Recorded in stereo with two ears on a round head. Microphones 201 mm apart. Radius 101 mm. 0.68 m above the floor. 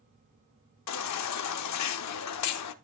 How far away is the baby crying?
About 0.7 m.